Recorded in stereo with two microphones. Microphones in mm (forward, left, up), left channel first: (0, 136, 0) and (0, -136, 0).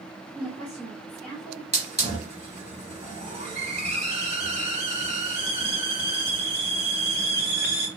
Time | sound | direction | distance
0.3 | a woman speaking | centre (ahead or behind) | 1.3 m
1.7 | a hiss | 25° right (ahead or behind) | 1.1 m